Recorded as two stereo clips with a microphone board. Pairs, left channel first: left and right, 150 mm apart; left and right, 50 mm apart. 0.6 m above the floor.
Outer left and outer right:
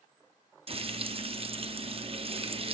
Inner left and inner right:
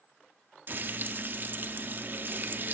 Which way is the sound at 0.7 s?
40° right (ahead or behind).